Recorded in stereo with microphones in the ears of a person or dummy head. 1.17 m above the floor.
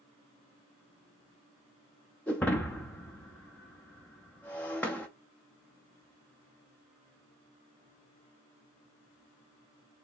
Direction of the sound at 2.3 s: 10° left (ahead or behind).